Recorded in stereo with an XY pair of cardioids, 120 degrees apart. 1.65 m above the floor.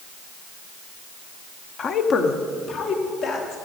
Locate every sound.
1.8 s a woman speaking: 40° left, 0.7 m; by 3.5 s 70° left, 3 m